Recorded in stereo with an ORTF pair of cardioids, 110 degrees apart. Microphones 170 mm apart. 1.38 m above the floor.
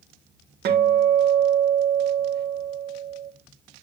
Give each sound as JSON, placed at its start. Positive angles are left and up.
{"t": 0.7, "sound": "a guitar", "azimuth_deg": -60, "distance_m": 1.8}